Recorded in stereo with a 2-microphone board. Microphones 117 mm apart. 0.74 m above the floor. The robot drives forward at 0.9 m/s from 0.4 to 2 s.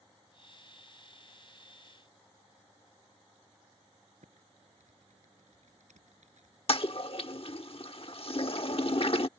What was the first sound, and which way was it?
Typing on a keyboard, 85° right.